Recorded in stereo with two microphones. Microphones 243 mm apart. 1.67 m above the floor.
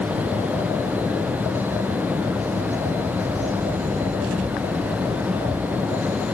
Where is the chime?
I don't hear a chime.